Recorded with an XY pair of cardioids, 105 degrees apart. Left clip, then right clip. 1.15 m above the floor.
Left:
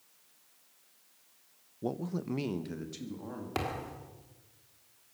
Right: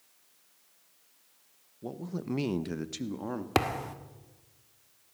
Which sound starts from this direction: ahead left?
A man speaking, at 1.8 s.